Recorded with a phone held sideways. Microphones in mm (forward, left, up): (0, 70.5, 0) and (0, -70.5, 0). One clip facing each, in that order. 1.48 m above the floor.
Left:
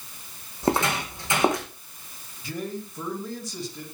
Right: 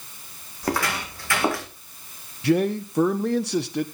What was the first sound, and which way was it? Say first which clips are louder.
Footsteps: left 2 dB; 25° left (ahead or behind).